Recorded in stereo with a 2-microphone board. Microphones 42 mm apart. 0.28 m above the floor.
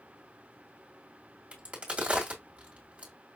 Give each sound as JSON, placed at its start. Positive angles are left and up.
{"t": 1.5, "sound": "a crack", "side_deg": -30, "distance_m": 1.9}